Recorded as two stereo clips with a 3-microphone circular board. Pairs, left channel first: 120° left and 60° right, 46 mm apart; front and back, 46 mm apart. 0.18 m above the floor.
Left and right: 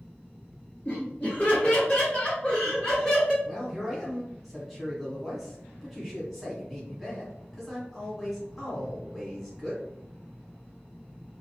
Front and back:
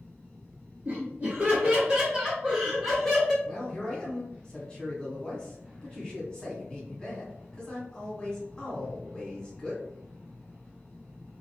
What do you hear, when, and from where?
0.8 s laughter: 160° left, 1.8 m; by 3.3 s 55° left, 1.5 m
3.4 s a man speaking: 20° left, 1.1 m